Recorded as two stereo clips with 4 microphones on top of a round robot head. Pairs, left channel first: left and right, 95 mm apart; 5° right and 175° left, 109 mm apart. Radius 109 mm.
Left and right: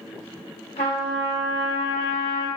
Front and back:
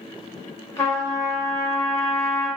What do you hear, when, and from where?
0.8 s a trumpet: 60° left, 2 m